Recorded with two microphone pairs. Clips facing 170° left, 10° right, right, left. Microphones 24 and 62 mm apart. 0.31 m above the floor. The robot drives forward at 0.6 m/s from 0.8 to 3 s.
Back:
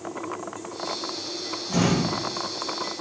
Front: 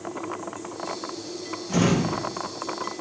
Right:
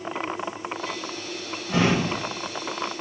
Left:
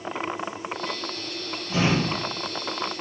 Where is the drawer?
90° right, 1.5 m; by 2.2 s 105° right, 1.5 m.